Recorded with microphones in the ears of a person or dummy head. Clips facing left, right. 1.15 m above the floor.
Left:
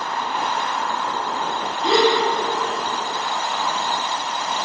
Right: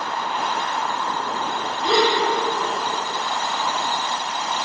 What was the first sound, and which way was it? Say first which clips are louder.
A gasp: left 2 dB; 50° left (ahead or behind).